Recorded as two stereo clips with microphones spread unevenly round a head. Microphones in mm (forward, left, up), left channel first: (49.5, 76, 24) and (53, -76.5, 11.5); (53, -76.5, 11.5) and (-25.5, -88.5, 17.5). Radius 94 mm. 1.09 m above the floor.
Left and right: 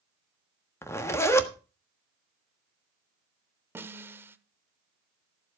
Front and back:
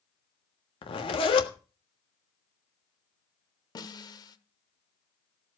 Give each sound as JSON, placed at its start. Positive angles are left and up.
{"t": 0.8, "sound": "a zipper", "azimuth_deg": 20, "distance_m": 1.4}
{"t": 3.8, "sound": "a snare drum", "azimuth_deg": -10, "distance_m": 1.1}